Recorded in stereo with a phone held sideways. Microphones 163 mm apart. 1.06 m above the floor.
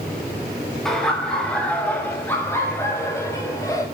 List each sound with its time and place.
0.8 s laughter: 5° left (ahead or behind), 6 m; by 3.9 s 20° left (ahead or behind), 6.5 m